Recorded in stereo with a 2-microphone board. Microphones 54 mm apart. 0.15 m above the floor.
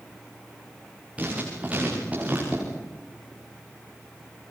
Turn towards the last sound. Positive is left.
turn(degrees=-25)  # may be behind; listen again after turning